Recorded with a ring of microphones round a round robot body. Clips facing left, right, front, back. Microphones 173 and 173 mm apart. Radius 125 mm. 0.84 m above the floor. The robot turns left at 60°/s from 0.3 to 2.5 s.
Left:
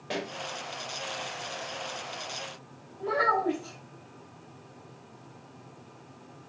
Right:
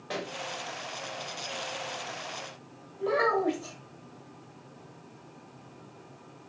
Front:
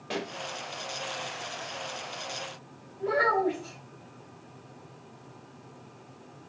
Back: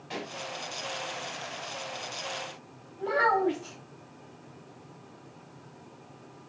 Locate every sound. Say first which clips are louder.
0.1 s a pop: left 2 dB, front 4 dB; 20° left, 1.2 m
3.0 s a child speaking: right 2 dB, even; 115° right, 3.5 m